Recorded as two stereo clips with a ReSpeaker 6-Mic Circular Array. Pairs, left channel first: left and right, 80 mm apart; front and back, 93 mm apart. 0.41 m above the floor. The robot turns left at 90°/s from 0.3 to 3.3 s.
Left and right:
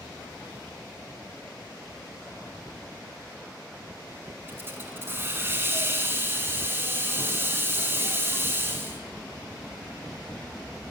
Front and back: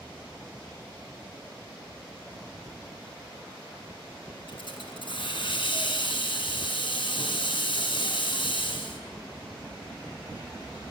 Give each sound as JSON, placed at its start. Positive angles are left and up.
{"t": 4.5, "sound": "a hiss", "azimuth_deg": -25, "distance_m": 1.7}